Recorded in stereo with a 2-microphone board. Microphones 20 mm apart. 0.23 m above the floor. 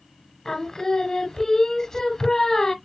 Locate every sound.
0.5 s singing: 25° left (ahead or behind), 0.9 m